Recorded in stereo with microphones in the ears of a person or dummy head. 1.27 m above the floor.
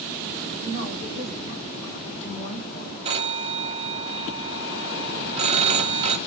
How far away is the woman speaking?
About 4.5 m.